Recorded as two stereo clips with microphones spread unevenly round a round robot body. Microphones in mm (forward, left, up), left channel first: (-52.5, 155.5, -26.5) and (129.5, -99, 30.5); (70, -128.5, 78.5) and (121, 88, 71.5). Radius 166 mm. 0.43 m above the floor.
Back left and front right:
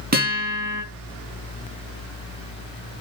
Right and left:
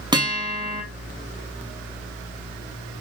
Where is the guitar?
5° left, 3.5 m.